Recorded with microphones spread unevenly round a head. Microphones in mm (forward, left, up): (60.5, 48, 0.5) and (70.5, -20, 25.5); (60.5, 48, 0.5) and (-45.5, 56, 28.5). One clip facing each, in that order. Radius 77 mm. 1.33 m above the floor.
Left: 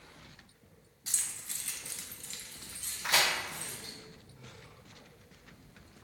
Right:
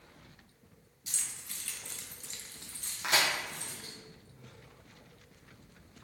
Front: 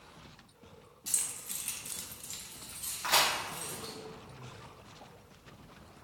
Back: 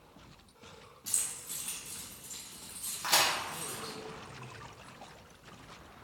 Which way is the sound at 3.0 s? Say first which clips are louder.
Even, front 1 dB; 120° right.